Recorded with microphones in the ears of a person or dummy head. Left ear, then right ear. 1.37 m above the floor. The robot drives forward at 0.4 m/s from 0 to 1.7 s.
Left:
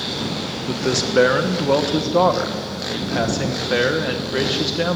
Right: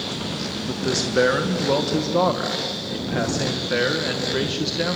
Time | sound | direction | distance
0.7 | a man speaking | 20° left (ahead or behind) | 1.1 m